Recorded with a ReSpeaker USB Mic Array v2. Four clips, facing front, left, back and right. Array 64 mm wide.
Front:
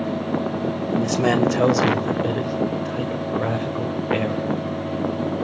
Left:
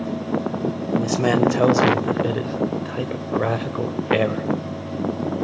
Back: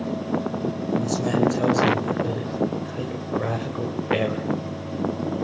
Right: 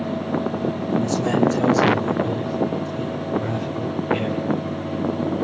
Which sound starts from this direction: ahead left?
A man speaking, at 0.9 s.